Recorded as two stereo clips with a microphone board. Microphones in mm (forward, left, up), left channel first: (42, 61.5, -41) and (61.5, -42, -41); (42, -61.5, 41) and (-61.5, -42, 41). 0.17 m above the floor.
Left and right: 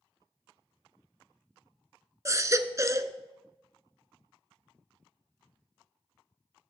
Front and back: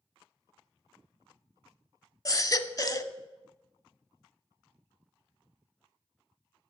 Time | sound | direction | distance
2.2 | a baby crying | 40° right | 0.7 m